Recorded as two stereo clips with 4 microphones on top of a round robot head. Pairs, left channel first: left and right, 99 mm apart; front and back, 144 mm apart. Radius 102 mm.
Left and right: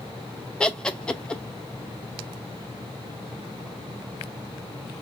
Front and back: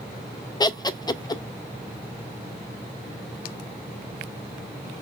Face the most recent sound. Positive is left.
turn(degrees=20)